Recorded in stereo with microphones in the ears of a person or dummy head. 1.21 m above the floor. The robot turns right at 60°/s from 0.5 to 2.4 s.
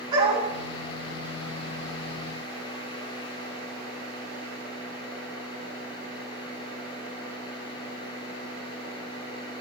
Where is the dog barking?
25° right (ahead or behind), 3.5 m.